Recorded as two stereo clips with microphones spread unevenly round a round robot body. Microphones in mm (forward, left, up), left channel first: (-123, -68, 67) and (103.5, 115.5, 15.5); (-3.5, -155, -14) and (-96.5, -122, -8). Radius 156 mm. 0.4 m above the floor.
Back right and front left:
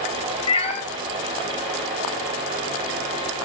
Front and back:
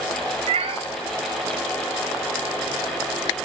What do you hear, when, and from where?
0.5 s a cat meowing: 150° left, 1.0 m